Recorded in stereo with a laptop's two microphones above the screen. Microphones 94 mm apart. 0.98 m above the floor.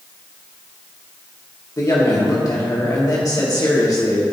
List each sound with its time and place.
1.8 s a woman speaking: 40° left (ahead or behind), 1.6 m